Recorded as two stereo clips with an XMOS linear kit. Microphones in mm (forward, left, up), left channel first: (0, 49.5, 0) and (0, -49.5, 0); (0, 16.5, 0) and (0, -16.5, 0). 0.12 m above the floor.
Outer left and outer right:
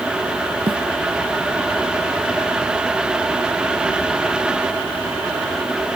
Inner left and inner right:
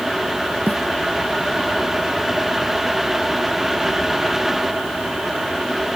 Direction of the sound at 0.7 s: 65° right (ahead or behind).